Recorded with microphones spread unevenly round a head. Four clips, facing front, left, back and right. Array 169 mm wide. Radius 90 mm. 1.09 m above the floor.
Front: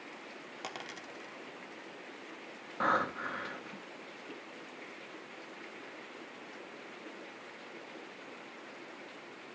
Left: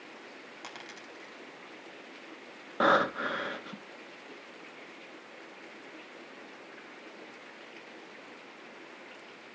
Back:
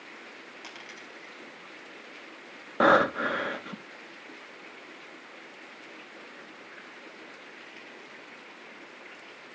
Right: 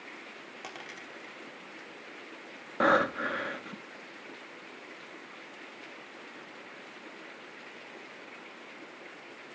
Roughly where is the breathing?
Behind.